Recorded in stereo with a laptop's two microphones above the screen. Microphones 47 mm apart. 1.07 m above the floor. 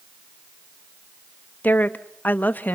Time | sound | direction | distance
1.6 | a woman speaking | 40° left (ahead or behind) | 0.9 m